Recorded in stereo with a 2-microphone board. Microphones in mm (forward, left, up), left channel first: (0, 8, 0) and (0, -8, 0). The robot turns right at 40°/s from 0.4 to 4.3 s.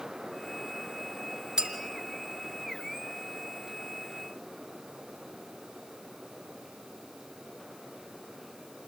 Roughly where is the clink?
Right.